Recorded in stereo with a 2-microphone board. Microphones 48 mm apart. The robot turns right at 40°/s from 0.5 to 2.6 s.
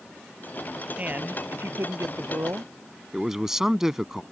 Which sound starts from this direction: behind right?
A man speaking, at 1.0 s.